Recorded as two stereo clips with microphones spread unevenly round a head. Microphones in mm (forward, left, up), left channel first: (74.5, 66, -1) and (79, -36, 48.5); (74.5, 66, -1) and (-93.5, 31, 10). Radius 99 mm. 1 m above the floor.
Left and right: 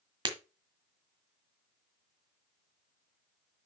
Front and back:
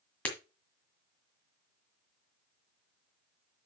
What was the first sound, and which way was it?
Breaking glass, 75° right.